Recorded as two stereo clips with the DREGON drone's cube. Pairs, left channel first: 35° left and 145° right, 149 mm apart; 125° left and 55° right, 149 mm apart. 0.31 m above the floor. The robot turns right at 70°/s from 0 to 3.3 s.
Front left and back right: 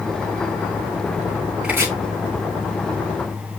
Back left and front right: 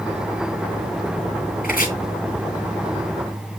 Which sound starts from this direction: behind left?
Chopping, at 1.6 s.